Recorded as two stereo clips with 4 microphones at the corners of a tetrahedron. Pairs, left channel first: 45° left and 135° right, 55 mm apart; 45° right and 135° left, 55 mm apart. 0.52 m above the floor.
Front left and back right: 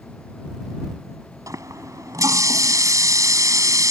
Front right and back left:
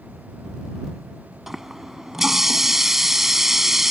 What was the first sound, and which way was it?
A running tap, 140° right.